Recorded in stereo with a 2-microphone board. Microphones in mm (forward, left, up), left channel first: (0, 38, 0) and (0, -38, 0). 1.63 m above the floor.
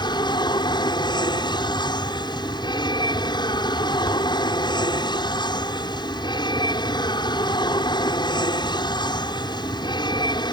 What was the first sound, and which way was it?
An aircraft, 70° left (ahead or behind).